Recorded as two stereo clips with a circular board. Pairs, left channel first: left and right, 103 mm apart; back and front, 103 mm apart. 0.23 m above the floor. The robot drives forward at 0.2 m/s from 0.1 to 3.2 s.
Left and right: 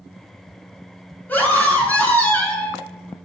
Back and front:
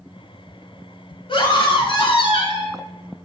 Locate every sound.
1.3 s a scream: 160° left, 3 m; by 2.8 s 165° left, 3 m